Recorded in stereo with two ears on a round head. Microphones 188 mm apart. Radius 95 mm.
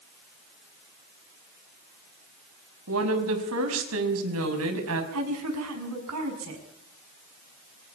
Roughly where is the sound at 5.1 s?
Right.